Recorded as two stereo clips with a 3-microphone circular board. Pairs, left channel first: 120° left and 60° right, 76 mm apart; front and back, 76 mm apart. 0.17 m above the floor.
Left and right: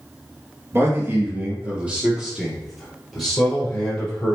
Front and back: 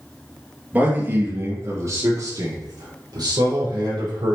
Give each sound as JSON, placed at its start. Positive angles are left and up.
{"t": 0.7, "sound": "a man speaking", "azimuth_deg": -110, "distance_m": 3.0}